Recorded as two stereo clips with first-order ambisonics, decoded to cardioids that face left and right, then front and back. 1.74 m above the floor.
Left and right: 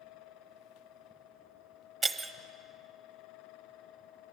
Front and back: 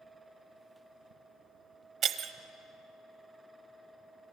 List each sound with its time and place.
2.0 s breaking glass: 165° right, 0.9 m